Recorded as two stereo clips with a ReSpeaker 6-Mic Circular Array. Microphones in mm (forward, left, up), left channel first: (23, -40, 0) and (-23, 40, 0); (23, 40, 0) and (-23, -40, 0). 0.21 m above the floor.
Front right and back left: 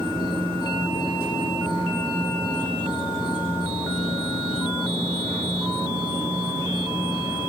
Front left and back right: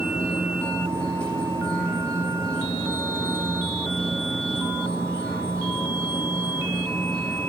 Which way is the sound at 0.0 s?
140° left.